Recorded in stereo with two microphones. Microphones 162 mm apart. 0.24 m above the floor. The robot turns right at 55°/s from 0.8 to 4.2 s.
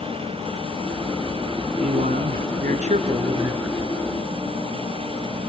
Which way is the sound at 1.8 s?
115° right.